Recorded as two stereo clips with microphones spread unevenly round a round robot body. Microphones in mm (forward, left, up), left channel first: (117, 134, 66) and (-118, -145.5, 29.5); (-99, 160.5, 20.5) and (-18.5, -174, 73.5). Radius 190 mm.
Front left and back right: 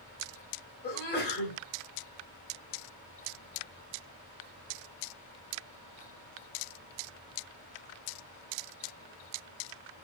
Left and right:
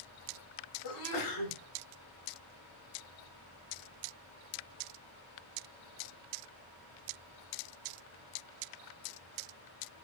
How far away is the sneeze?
About 3.5 m.